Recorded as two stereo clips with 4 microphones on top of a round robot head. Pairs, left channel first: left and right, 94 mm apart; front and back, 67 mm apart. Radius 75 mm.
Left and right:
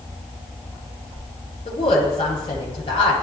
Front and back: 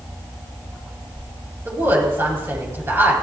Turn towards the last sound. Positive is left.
turn(degrees=120)